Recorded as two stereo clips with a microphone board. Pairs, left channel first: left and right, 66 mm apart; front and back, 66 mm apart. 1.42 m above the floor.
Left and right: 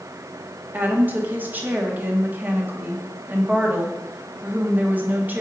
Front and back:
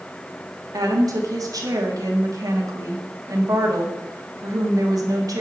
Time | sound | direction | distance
0.7 | a woman speaking | 150° right | 1.3 m